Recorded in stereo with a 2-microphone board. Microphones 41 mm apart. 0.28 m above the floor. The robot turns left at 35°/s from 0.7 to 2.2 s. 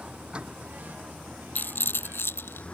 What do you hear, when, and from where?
0.0 s a vehicle: 155° right; by 2.7 s 150° left
1.6 s a rattle: 50° left (ahead or behind); by 2.6 s 70° left (ahead or behind)